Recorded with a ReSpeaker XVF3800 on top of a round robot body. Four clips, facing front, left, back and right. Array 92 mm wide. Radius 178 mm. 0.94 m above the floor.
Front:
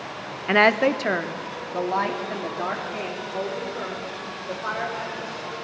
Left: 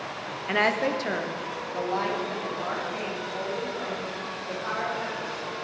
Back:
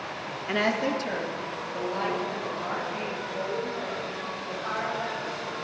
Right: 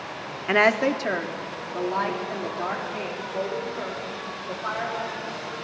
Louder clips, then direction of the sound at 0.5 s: Right 4 dB, front 8 dB; 35° right.